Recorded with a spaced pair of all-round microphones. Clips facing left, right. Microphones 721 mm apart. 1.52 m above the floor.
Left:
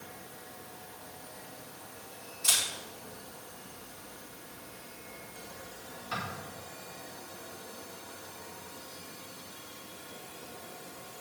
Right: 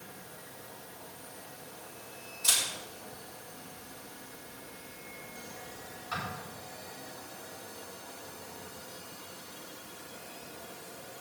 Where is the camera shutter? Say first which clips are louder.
Even; 55° left (ahead or behind), 6 m.